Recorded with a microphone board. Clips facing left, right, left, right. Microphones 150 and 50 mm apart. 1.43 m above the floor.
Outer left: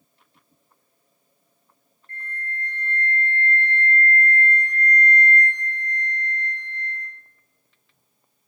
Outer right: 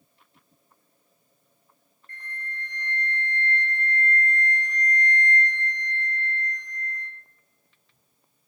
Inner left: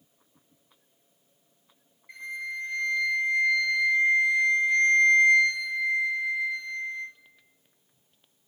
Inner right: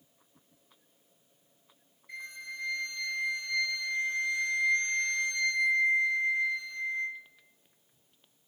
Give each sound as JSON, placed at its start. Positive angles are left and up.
{"t": 2.1, "sound": "a flute", "side_deg": 20, "distance_m": 1.4}